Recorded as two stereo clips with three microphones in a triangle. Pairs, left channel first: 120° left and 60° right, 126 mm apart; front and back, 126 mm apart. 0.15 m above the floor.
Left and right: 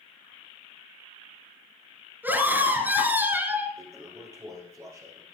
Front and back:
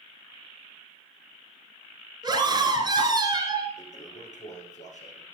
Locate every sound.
2.2 s a scream: 135° right, 2.5 m
3.8 s a toilet flushing: 5° left, 2.5 m